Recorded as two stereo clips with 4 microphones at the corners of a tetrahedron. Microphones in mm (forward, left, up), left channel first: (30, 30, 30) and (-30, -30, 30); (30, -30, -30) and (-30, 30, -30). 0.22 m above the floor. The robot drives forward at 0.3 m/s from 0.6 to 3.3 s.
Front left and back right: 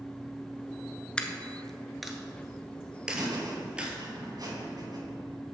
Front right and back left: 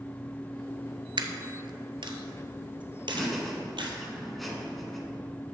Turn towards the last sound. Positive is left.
turn(degrees=-135)